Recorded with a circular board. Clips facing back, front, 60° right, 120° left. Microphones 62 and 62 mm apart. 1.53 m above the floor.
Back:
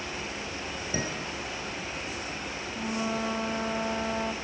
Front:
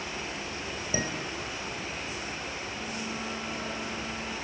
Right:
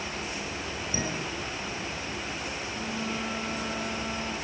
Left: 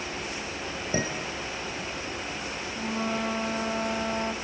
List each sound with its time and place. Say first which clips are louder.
0.9 s dishes clattering: front 1 dB, left 3 dB; 75° left, 5 m
2.7 s a flute: back 5 dB, left 5 dB; 165° left, 4 m